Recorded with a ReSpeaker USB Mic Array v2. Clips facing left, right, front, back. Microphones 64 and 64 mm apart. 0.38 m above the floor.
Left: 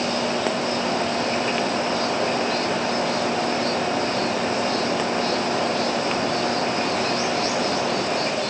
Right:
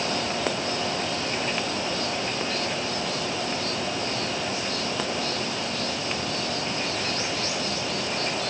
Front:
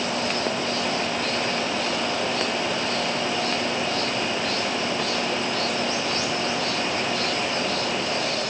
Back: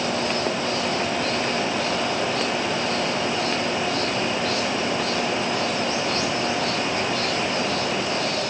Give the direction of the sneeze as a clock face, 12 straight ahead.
No sneeze in this recording.